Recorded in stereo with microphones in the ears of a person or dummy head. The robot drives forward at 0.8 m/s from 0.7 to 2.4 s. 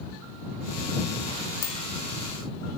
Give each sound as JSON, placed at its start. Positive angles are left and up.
{"t": 1.6, "sound": "a bicycle bell", "side_deg": 85, "distance_m": 4.0}